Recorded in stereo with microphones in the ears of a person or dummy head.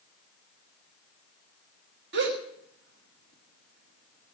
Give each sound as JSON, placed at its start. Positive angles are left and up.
{"t": 2.1, "sound": "a gasp", "side_deg": -60, "distance_m": 1.6}